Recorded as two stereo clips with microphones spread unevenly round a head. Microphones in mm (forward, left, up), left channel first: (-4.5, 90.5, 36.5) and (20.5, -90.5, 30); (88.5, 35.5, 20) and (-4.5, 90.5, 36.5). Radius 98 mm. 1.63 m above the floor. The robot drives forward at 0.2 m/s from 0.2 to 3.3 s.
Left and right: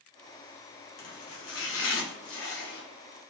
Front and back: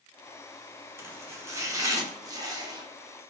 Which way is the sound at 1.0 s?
80° left.